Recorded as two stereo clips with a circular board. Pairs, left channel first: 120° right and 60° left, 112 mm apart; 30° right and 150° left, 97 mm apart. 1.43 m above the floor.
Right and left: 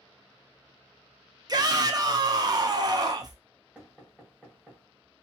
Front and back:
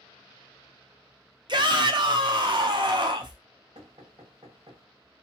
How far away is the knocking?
About 1.3 m.